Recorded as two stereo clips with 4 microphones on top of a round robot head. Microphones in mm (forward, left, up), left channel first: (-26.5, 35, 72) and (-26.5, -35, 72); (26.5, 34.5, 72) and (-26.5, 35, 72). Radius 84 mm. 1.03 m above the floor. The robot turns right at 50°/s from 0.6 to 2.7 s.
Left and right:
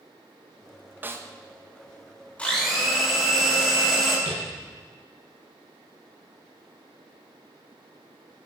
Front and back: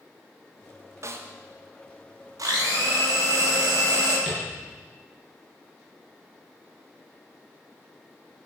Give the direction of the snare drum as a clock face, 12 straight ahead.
5 o'clock.